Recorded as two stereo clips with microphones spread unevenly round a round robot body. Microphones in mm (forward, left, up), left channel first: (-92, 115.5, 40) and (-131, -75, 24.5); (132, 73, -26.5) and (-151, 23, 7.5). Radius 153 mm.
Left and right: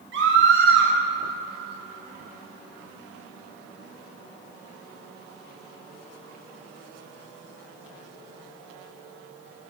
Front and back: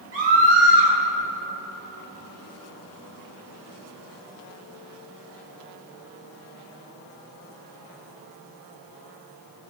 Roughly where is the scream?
Behind right.